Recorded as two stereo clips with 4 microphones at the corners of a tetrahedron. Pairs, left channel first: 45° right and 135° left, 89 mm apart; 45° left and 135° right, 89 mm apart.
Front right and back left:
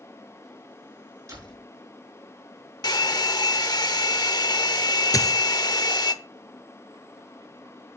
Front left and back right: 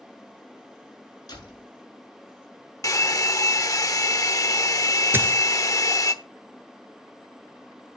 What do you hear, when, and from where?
1.3 s a door slam: 85° left, 7 m
2.8 s a hair dryer: 5° right, 0.8 m
5.1 s a dropped coin: 80° right, 1.1 m